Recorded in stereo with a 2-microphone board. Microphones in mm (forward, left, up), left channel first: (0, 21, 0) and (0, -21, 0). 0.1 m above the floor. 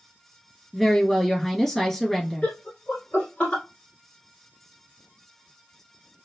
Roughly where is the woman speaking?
Centre.